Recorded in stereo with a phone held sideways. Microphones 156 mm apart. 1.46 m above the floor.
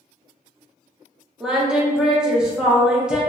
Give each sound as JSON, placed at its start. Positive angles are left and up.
{"t": 1.4, "sound": "singing", "side_deg": -5, "distance_m": 0.6}